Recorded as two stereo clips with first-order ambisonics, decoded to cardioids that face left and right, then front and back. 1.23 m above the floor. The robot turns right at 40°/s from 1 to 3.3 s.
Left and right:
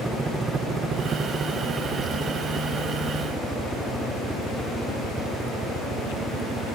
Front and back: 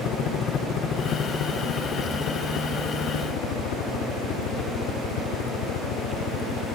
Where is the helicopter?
10° right.